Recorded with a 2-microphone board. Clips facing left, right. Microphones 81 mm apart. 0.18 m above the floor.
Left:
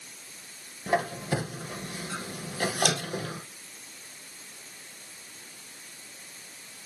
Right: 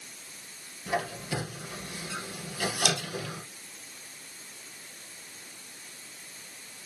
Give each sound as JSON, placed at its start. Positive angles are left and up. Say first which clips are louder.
{"t": 0.9, "sound": "a squeak", "louder": "left 4 dB", "side_deg": 45, "distance_m": 2.5}